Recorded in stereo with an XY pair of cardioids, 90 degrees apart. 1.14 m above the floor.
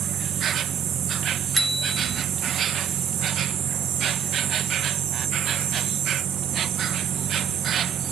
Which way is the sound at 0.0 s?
65° right.